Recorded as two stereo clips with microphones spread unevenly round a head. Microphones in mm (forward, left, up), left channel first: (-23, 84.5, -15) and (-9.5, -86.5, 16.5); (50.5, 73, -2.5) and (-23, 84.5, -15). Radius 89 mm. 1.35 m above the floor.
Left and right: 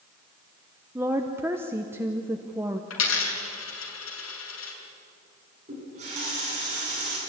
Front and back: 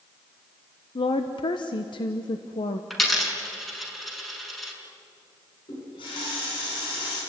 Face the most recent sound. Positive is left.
turn(degrees=-30)